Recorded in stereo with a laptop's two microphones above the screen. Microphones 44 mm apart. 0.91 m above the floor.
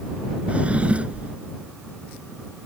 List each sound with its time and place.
0.5 s a drawer: 25° right (ahead or behind)